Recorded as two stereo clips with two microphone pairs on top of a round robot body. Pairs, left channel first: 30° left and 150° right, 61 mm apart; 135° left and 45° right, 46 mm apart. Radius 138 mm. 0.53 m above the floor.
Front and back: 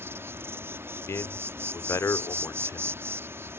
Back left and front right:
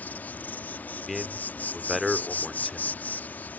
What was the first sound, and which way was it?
An insect, 165° left.